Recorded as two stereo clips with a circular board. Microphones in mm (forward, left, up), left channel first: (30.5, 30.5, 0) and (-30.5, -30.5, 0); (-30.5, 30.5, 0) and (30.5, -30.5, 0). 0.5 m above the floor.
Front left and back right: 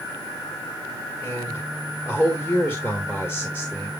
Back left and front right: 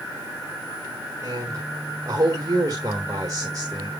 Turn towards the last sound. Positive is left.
turn(degrees=-10)